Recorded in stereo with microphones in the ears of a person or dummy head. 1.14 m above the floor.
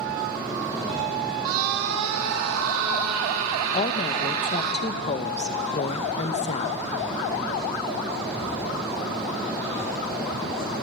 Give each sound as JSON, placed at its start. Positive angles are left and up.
{"t": 1.4, "sound": "a scream", "side_deg": -75, "distance_m": 1.9}
{"t": 3.7, "sound": "a woman speaking", "side_deg": 35, "distance_m": 0.9}